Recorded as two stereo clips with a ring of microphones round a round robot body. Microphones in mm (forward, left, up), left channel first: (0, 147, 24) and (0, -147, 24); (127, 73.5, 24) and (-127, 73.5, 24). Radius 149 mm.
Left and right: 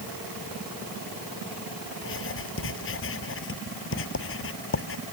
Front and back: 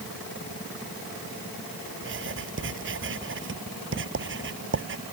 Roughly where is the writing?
Behind left.